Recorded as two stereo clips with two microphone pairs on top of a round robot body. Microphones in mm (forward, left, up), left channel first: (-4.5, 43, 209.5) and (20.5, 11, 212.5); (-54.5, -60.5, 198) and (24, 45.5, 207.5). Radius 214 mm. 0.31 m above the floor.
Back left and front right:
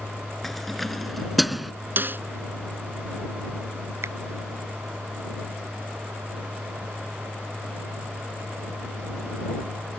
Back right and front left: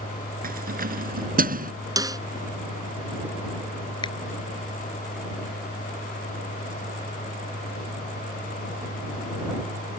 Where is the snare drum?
10° right.